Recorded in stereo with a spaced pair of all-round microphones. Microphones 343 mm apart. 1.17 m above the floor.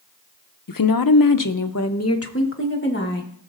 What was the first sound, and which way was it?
A woman speaking, 70° left (ahead or behind).